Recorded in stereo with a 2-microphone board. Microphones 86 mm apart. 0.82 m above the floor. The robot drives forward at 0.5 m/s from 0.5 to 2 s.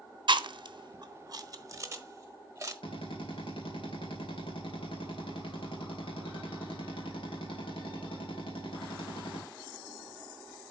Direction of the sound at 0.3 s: 60° right (ahead or behind).